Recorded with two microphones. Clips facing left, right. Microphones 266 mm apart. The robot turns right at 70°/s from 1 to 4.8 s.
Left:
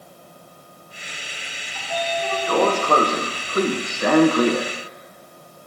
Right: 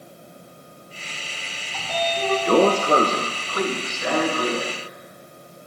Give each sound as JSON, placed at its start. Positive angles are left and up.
{"t": 1.7, "sound": "a sliding door", "azimuth_deg": -95, "distance_m": 0.8}